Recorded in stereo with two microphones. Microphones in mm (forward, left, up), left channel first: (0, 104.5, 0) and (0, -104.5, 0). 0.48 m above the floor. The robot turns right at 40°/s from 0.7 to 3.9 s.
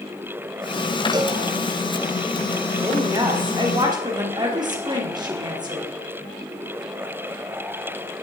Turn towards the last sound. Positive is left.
turn(degrees=-20)  # may be behind; listen again after turning